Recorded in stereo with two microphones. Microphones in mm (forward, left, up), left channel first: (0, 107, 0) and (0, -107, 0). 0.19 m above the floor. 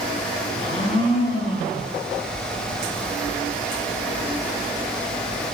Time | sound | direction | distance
0.6 | a blender | 35° left (ahead or behind) | 1.8 m